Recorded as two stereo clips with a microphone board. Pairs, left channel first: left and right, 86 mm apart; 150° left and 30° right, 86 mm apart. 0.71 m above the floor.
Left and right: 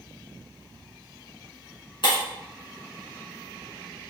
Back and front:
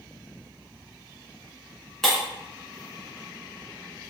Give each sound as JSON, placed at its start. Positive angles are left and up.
{"t": 2.0, "sound": "breaking glass", "azimuth_deg": 65, "distance_m": 3.0}